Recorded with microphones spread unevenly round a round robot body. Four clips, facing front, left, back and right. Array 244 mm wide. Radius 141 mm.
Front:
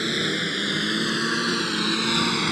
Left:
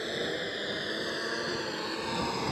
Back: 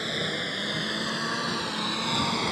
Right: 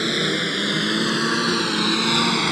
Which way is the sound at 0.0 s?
75° right.